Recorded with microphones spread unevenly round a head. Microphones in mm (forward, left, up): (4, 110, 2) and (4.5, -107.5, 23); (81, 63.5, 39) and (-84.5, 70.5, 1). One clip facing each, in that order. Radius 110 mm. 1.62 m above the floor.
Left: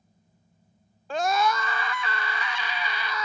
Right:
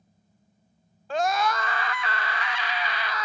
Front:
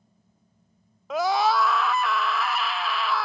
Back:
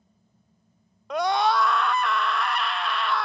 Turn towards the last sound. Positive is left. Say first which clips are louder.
# even, even
turn(degrees=85)